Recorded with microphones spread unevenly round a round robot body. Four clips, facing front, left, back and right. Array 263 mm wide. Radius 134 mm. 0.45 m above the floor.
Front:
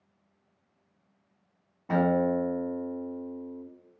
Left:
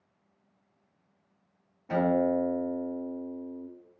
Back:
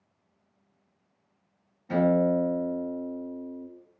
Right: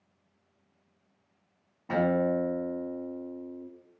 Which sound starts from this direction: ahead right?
A guitar, at 1.9 s.